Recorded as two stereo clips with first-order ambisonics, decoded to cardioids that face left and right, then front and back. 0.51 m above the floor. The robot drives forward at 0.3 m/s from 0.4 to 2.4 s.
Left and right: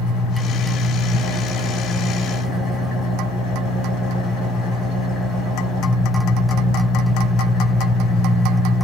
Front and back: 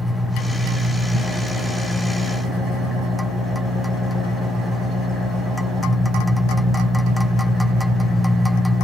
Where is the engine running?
95° left, 1.9 m; by 8.8 s 110° left, 2 m.